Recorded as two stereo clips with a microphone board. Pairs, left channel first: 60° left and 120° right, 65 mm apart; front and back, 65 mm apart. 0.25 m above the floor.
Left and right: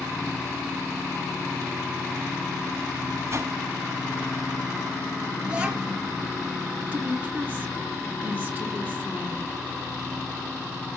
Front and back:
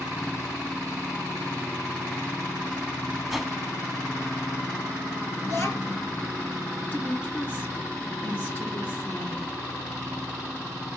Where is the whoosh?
90° right, 1.0 m.